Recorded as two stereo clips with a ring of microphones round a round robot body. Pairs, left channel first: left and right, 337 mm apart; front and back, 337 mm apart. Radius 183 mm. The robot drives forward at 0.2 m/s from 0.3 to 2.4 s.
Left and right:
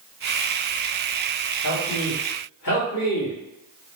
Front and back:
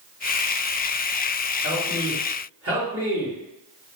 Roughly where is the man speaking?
Behind left.